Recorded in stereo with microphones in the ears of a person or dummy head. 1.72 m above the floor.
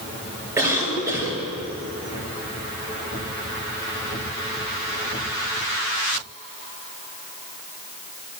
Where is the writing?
I don't hear writing.